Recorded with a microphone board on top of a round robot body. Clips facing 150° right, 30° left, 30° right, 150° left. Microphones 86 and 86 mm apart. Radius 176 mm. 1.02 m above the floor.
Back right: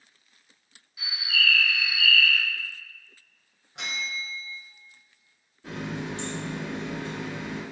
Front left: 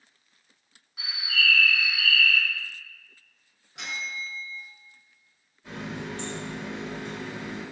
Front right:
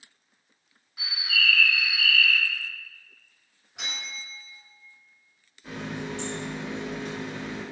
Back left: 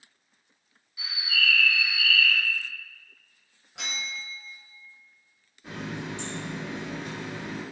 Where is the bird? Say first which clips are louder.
Even, front right 1 dB; straight ahead, 1.0 m.